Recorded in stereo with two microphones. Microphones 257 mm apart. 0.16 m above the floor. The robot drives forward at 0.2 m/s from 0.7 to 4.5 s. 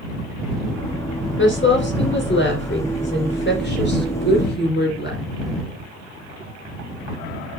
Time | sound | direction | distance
1.4 | a woman speaking | 50° left (ahead or behind) | 3 m